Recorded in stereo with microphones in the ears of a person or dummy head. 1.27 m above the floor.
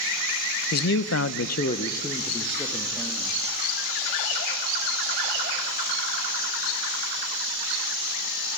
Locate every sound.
0.7 s a man speaking: 60° left (ahead or behind), 1.0 m; by 3.4 s 10° right (ahead or behind), 2.5 m